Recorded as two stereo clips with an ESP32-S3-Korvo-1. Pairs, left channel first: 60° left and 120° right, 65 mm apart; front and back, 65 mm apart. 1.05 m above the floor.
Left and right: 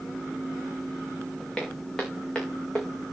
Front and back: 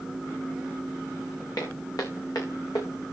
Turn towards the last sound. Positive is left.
turn(degrees=-15)